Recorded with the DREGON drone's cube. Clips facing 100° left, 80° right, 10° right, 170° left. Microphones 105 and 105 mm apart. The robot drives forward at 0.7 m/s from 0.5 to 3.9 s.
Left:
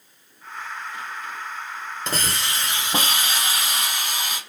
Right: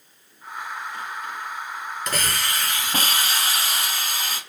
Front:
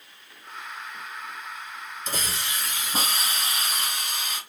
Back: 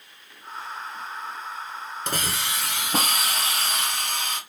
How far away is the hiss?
About 1.5 m.